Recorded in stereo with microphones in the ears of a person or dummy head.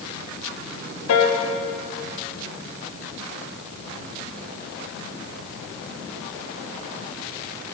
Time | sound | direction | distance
1.1 | a piano | 80° left | 1.4 m